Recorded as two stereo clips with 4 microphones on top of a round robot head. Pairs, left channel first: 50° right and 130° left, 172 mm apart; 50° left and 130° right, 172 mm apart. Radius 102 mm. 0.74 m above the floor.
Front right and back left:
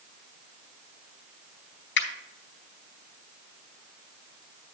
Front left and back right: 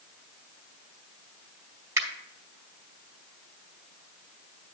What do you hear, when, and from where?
2.0 s a finger snap: 55° right, 1.9 m